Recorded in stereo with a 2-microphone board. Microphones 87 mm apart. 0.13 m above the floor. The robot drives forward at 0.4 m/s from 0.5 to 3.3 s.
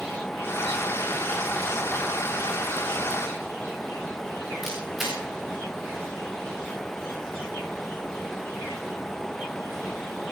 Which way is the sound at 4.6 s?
5° right (ahead or behind).